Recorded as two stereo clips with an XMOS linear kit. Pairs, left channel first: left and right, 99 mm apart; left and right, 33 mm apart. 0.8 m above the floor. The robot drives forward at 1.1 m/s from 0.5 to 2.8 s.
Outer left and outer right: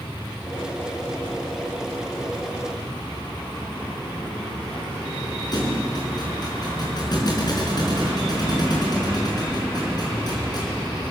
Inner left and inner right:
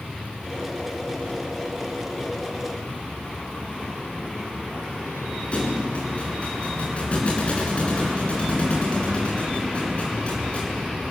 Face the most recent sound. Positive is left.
turn(degrees=45)  # may be behind; listen again after turning